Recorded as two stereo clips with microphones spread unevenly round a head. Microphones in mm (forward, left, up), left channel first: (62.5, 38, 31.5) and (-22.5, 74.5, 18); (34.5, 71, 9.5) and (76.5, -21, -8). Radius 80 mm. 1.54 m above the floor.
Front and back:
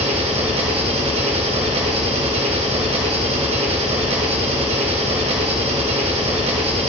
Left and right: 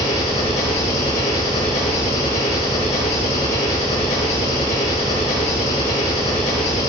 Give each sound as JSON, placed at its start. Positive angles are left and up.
{"t": 0.0, "sound": "an engine running", "azimuth_deg": 150, "distance_m": 3.0}